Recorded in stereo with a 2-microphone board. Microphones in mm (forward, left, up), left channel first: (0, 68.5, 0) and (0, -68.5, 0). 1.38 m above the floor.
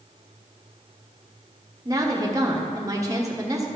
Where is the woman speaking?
25° right (ahead or behind), 1.2 m.